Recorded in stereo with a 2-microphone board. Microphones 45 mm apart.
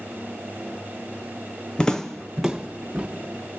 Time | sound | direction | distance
1.8 | footsteps | 20° left (ahead or behind) | 0.9 m